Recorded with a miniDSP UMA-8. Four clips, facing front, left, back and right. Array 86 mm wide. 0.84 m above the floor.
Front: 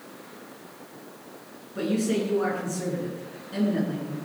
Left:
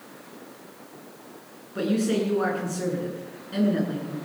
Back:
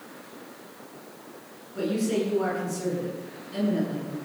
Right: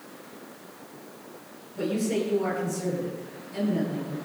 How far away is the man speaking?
About 8.5 m.